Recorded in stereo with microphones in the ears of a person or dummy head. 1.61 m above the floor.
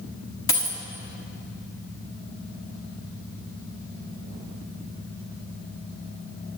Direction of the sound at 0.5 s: 25° left (ahead or behind).